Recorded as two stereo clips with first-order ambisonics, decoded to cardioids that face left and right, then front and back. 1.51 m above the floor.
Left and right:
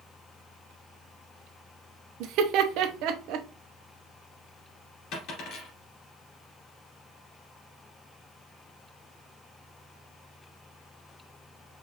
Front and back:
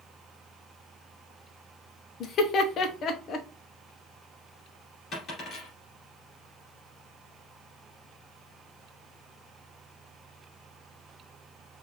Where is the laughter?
55° right, 0.8 m.